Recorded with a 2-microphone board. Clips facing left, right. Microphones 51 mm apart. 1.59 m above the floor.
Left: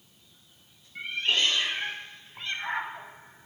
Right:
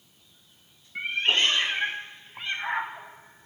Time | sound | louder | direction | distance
0.9 | a cat meowing | right 3 dB | 40° right (ahead or behind) | 1.3 m